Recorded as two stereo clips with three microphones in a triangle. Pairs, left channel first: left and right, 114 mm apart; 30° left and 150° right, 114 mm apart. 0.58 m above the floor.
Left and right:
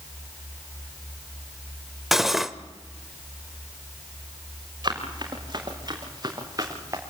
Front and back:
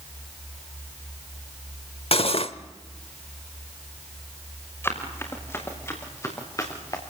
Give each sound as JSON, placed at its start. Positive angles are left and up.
{"t": 2.1, "sound": "cutlery clinking", "azimuth_deg": 0, "distance_m": 1.0}
{"t": 4.8, "sound": "running footsteps", "azimuth_deg": -40, "distance_m": 6.5}